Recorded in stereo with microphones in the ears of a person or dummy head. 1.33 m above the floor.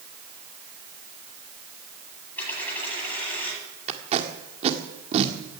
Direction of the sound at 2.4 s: 10° left (ahead or behind).